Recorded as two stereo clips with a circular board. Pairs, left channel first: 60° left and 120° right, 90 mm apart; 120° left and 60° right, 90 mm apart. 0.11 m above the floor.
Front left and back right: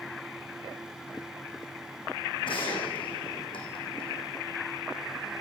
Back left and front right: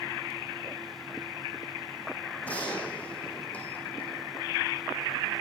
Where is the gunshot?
45° left, 4.5 m.